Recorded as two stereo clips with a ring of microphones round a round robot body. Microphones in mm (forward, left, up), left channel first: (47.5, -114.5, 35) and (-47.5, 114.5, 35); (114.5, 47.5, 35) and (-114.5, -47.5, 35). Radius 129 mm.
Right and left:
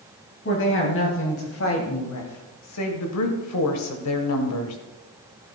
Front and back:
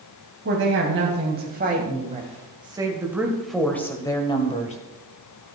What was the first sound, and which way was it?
A woman speaking, 115° right.